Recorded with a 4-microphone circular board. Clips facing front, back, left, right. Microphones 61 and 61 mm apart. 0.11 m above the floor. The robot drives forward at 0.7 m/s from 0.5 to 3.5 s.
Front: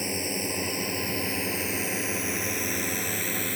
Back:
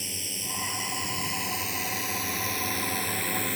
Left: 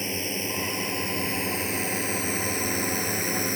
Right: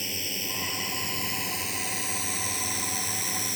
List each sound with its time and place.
0.0 s a drone: 35° left; by 3.6 s 85° left